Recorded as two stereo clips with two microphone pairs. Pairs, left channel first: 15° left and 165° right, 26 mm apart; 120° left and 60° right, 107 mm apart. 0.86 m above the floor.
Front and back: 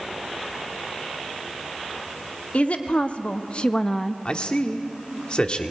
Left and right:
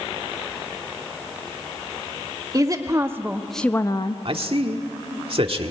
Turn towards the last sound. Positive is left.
turn(degrees=-30)